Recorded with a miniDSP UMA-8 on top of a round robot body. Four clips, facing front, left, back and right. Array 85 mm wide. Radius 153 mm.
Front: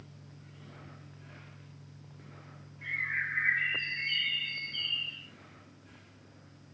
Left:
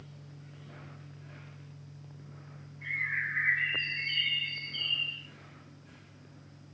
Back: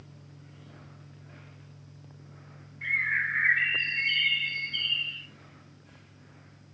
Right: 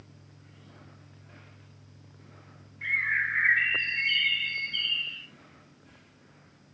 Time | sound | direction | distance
2.8 | a bird | 125° right | 1.9 m